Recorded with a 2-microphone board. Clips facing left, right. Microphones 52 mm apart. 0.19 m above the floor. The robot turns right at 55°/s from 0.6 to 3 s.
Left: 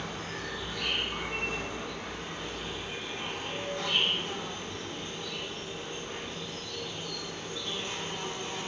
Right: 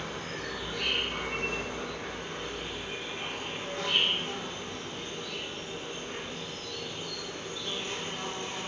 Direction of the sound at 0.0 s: 150° right.